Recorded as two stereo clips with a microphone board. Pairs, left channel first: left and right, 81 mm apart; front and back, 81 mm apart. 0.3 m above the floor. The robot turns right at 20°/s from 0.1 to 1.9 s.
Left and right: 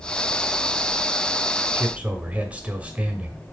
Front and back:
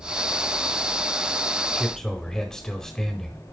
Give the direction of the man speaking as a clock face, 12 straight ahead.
2 o'clock.